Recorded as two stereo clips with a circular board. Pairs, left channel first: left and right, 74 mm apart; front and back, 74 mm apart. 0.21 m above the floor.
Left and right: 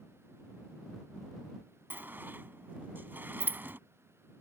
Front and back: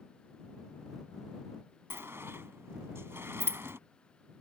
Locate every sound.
1.9 s a sliding door: 140° right